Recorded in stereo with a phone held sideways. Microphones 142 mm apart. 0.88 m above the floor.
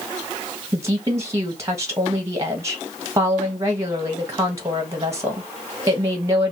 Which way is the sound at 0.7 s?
20° right (ahead or behind).